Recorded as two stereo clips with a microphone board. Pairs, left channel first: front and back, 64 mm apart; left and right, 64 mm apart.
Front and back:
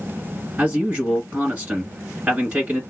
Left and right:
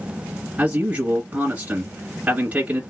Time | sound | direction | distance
0.6 | a man speaking | 130° right | 1.6 m